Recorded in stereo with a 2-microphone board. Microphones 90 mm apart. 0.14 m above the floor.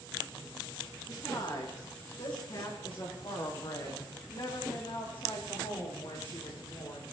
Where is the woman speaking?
50° left (ahead or behind), 9.5 m; by 7.0 s 70° left (ahead or behind), 12 m.